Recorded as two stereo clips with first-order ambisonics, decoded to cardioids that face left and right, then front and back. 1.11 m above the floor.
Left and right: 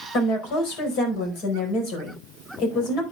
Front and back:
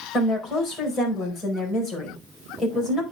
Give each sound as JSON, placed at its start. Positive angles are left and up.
{"t": 0.1, "sound": "a woman speaking", "azimuth_deg": 65, "distance_m": 4.5}